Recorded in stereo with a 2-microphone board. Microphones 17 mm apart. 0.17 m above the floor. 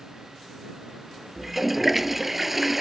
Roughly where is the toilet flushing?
Centre.